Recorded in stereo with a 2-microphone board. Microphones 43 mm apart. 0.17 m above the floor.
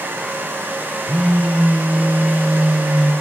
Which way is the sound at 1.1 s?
25° right (ahead or behind).